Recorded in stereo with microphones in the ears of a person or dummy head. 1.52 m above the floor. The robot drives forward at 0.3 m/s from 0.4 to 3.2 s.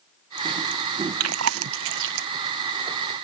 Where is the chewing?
80° right; by 2.3 s 65° right (ahead or behind).